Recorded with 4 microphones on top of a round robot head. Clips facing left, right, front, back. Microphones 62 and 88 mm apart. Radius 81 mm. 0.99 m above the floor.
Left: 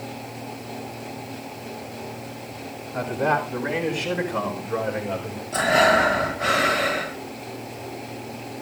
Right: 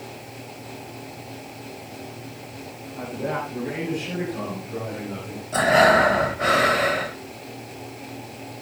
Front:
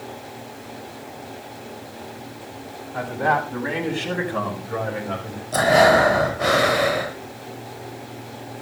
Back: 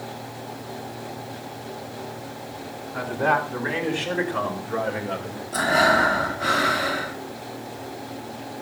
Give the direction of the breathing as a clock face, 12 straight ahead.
1 o'clock.